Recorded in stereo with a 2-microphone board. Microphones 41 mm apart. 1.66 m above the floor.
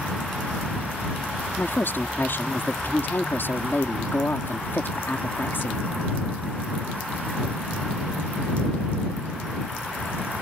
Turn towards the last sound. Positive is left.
turn(degrees=60)  # may be behind; listen again after turning